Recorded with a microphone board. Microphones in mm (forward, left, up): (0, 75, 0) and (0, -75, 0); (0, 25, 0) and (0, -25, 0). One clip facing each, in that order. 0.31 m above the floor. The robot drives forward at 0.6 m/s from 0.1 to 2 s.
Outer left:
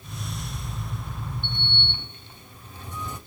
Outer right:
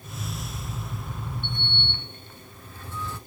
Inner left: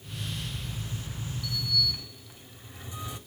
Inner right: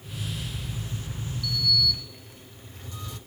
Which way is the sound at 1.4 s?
20° left (ahead or behind).